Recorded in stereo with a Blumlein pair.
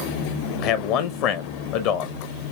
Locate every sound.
0.6 s a man speaking: 40° left, 0.8 m